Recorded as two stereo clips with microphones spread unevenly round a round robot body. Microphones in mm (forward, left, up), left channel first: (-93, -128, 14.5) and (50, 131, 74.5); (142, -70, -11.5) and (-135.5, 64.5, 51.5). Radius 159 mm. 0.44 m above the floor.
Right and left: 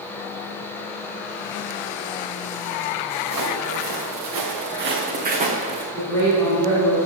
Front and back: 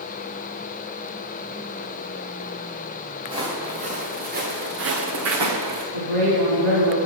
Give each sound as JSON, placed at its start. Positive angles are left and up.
{"t": 3.2, "sound": "footsteps", "azimuth_deg": 80, "distance_m": 3.0}
{"t": 5.9, "sound": "a woman speaking", "azimuth_deg": 160, "distance_m": 3.5}